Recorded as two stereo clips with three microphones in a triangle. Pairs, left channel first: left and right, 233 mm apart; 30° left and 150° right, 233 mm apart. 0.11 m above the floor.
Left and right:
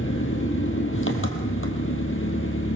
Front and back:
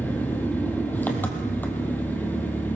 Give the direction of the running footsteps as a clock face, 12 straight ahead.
No running footsteps in this recording.